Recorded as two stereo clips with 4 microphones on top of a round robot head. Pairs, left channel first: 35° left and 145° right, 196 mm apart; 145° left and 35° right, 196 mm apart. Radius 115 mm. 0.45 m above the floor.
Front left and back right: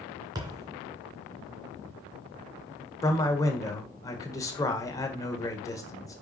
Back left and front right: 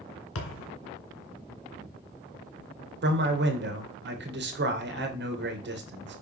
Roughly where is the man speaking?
Ahead right.